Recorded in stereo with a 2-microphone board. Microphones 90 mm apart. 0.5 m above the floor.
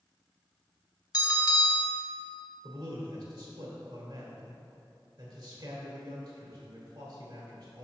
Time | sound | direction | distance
1.1 | a bell | 50° left (ahead or behind) | 1.0 m
2.6 | a man speaking | 60° right (ahead or behind) | 1.9 m